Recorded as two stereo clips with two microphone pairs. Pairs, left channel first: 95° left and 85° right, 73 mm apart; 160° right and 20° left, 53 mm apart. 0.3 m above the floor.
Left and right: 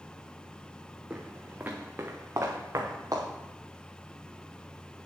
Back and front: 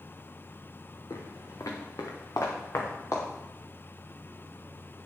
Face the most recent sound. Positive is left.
turn(degrees=-125)